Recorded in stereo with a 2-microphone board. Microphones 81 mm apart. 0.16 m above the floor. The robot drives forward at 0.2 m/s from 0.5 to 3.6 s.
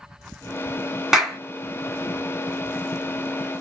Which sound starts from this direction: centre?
A clap, at 1.1 s.